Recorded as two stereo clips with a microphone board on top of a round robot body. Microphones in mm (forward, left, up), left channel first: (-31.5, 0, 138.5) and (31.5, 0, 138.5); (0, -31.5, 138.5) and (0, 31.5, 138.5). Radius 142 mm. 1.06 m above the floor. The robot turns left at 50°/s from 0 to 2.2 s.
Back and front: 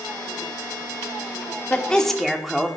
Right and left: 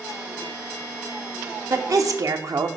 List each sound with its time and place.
1.7 s a woman speaking: 115° left, 1.0 m; by 2.7 s 90° left, 1.0 m